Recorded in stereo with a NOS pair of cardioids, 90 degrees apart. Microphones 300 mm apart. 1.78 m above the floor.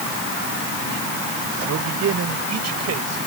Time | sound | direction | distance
1.6 | a man speaking | 60° right | ?